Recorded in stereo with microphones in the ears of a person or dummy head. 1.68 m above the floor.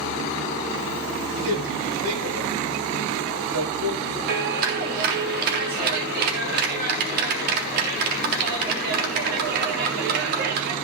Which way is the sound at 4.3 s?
50° right (ahead or behind).